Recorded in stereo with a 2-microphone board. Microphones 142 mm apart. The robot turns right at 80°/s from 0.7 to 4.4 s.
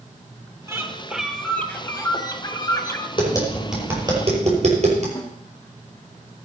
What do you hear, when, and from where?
0.7 s a bird: 20° right (ahead or behind), 1.5 m; by 3.1 s 20° left (ahead or behind), 1.5 m
3.2 s tapping: 40° left (ahead or behind), 6 m; by 5.0 s 55° right (ahead or behind), 6 m
5.2 s a snare drum: 25° left (ahead or behind), 2.5 m